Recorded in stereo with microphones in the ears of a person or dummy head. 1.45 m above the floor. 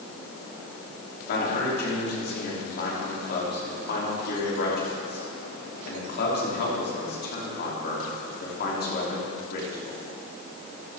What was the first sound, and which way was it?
A man speaking, 55° left (ahead or behind).